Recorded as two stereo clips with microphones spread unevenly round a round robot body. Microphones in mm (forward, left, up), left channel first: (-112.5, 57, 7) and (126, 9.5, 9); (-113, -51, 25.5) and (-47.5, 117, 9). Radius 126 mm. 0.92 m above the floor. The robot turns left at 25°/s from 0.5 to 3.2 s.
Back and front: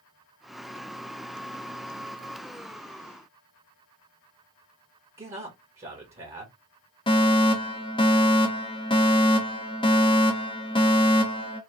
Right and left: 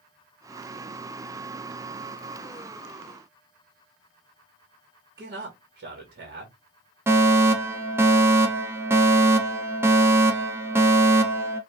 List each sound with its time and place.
5.2 s a man speaking: 50° left, 1.5 m
7.1 s a fire alarm: 125° left, 1.4 m